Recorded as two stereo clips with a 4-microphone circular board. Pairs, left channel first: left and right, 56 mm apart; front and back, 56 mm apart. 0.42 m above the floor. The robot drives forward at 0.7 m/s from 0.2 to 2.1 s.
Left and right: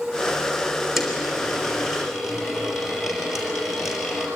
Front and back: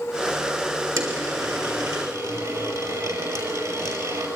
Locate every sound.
1.0 s a dropped coin: 175° right, 5 m